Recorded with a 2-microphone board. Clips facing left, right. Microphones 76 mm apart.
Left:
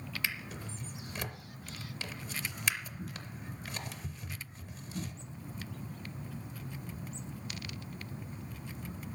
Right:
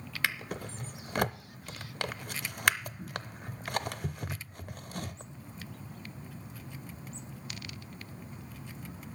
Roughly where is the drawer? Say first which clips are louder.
Right 7 dB; right.